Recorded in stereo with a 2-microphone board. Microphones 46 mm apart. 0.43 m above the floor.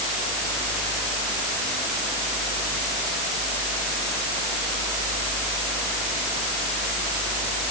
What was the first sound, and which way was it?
Only background noise.